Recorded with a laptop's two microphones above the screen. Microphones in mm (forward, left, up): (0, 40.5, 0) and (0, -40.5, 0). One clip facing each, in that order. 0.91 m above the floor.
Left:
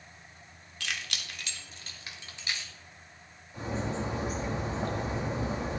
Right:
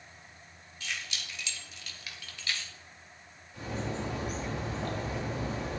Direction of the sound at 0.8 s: 85° left.